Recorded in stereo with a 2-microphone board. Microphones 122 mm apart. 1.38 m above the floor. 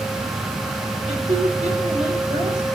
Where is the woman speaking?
65° right (ahead or behind), 6.5 m; by 2.7 s 75° right (ahead or behind), 7 m.